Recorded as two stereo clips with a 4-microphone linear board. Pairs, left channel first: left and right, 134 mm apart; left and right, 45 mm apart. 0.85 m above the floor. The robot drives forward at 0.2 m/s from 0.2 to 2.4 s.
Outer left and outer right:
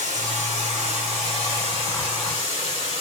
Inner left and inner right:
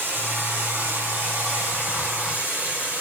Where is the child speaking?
No child speaking in this recording.